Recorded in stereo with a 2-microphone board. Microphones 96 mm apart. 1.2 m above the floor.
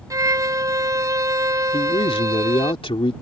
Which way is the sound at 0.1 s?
35° right (ahead or behind).